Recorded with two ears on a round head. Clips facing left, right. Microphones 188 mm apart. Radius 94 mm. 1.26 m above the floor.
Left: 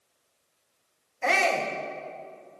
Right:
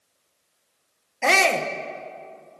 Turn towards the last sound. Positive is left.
turn(degrees=-65)  # may be behind; listen again after turning